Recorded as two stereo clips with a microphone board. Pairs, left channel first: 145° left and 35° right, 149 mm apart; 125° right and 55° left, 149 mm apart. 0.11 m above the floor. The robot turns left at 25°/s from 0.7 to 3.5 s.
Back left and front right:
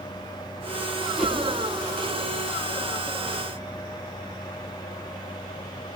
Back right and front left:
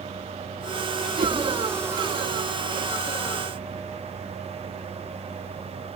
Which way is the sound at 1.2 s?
55° left.